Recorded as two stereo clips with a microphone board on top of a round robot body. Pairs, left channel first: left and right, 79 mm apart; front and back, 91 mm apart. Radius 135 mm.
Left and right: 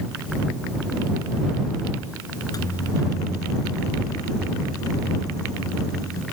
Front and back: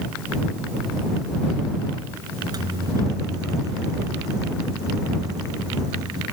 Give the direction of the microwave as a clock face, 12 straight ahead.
8 o'clock.